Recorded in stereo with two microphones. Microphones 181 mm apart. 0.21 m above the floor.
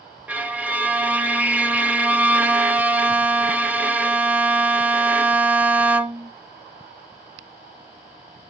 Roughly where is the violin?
Centre.